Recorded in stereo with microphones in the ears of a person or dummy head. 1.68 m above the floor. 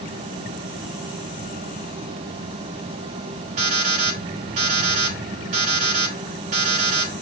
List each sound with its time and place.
3.6 s an alarm clock: 40° right (ahead or behind), 4 m